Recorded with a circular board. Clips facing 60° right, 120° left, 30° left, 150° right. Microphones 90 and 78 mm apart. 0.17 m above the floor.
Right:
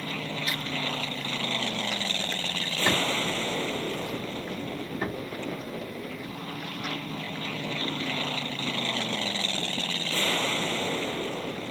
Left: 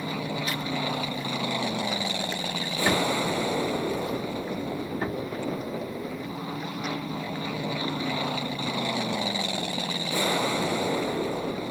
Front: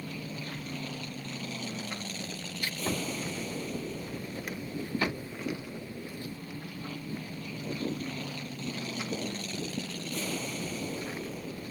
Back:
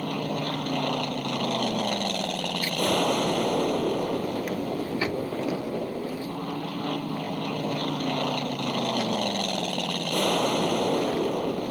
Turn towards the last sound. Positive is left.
turn(degrees=-165)